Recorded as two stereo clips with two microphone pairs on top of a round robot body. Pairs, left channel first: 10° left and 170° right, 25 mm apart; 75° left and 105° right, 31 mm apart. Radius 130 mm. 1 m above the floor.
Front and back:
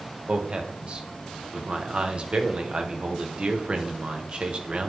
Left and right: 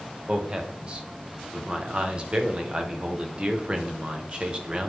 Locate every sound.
0.3 s a man speaking: 155° right, 1.5 m